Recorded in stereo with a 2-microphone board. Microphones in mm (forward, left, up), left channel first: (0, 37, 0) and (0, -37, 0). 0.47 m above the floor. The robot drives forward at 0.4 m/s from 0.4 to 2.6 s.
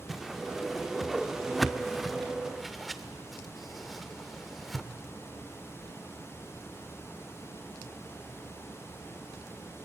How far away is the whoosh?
About 0.5 m.